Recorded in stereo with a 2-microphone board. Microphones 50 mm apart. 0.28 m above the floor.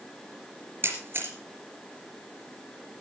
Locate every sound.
0.8 s a camera shutter: 45° right (ahead or behind), 3.5 m